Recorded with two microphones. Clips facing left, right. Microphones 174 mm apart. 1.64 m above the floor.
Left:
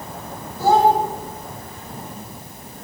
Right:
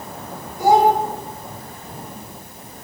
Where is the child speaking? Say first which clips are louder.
Right 1 dB; 15° right (ahead or behind), 5 m.